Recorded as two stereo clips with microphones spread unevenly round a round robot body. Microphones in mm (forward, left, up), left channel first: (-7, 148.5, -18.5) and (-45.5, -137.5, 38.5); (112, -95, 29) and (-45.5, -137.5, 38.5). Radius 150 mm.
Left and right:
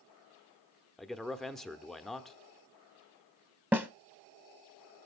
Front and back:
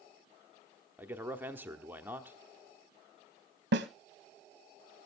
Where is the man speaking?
130° left, 1.1 m.